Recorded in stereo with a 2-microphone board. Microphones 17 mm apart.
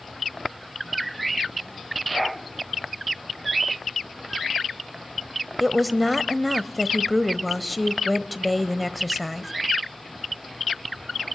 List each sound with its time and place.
5.6 s a woman speaking: 5° right (ahead or behind), 1.4 m